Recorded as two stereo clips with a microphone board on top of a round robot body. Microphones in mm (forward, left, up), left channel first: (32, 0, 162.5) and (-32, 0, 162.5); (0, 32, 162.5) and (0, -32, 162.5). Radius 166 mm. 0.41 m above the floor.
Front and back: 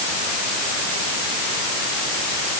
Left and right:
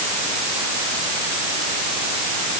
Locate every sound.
Only background noise.